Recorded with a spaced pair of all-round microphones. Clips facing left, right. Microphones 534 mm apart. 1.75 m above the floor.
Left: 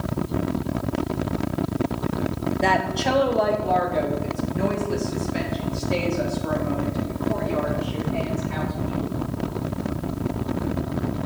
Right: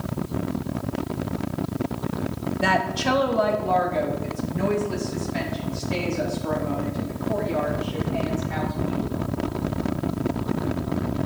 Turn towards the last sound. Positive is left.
turn(degrees=-15)  # may be behind; listen again after turning